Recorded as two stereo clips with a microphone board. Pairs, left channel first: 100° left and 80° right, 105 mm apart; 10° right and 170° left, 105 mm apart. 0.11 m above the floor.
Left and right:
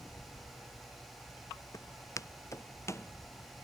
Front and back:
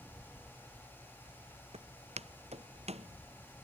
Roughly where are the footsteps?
Behind.